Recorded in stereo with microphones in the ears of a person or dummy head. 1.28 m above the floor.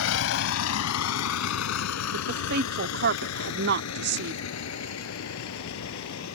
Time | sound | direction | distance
0.0 | a vehicle | 85° left | ?
2.1 | a woman speaking | 50° right (ahead or behind) | ?